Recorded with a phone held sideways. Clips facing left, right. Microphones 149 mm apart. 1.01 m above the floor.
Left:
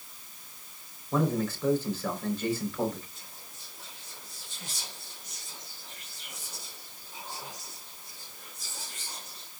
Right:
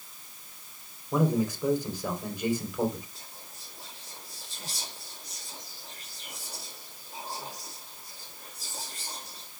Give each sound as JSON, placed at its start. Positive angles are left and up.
{"t": 1.1, "sound": "a man speaking", "side_deg": -15, "distance_m": 3.5}
{"t": 3.1, "sound": "whispering", "side_deg": -35, "distance_m": 2.5}